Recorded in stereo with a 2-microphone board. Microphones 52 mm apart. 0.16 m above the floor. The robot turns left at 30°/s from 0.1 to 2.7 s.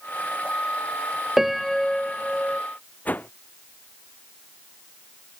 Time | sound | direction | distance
1.4 | a piano | 170° right | ?
3.0 | a whoosh | 30° left (ahead or behind) | ?